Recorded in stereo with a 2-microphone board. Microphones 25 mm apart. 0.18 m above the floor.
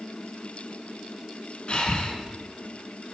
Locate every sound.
1.7 s breathing: 40° left (ahead or behind), 1.4 m